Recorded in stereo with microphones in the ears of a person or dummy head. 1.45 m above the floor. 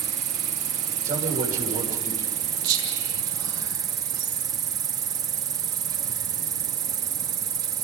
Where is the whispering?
65° right (ahead or behind), 5 m.